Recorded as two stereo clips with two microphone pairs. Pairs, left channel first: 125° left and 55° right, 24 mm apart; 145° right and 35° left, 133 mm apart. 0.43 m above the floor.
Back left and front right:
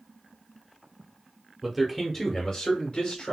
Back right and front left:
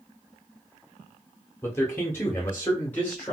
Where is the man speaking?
100° right, 0.8 m; by 3.3 s 140° left, 1.2 m.